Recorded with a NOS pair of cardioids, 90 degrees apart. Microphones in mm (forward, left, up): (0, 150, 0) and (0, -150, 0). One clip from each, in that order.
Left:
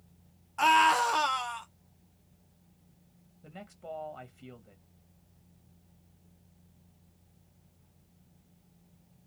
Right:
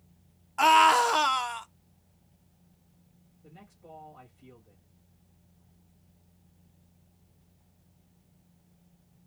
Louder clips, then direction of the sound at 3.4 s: Left 8 dB; 55° left.